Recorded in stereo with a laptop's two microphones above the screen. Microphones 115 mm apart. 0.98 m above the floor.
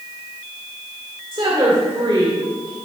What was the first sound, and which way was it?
A woman speaking, 45° right (ahead or behind).